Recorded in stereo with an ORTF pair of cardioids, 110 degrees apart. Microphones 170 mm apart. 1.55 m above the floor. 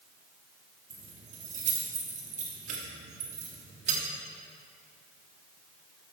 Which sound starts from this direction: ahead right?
Keys jangling, at 0.9 s.